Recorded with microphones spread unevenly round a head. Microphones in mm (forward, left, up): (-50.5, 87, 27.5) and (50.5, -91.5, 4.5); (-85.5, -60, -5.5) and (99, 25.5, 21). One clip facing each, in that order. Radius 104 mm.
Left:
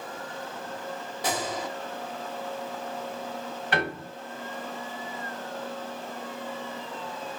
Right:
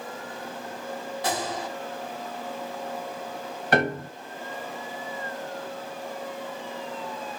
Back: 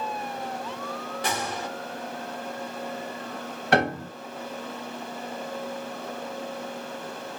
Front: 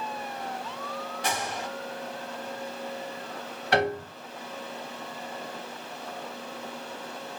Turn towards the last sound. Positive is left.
turn(degrees=-110)